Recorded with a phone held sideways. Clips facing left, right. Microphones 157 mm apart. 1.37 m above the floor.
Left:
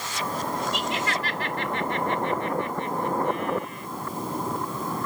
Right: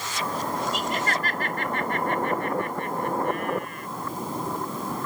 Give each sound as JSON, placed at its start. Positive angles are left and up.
{"t": 0.7, "sound": "laughter", "side_deg": -45}